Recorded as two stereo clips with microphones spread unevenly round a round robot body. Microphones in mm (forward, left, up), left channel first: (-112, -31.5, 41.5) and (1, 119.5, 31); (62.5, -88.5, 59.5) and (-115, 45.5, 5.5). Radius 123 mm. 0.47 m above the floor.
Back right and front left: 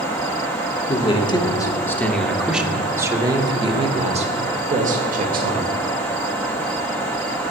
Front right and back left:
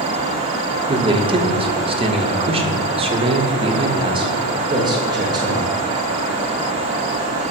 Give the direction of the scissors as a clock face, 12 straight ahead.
I don't hear scissors.